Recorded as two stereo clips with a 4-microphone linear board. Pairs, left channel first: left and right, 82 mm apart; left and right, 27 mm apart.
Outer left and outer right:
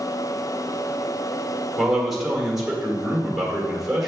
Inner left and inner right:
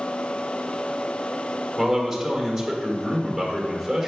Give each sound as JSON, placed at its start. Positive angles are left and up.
{"t": 1.8, "sound": "a man speaking", "side_deg": 0, "distance_m": 1.8}